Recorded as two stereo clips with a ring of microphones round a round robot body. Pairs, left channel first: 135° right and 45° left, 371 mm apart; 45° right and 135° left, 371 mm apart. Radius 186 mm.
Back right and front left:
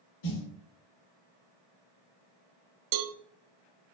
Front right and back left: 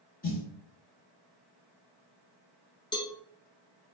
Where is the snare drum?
115° right, 4 m.